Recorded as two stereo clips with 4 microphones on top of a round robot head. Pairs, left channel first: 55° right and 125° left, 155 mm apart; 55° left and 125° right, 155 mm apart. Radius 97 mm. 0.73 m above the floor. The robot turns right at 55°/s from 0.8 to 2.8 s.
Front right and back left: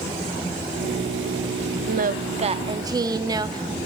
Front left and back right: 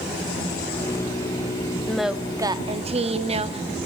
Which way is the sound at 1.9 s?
140° left.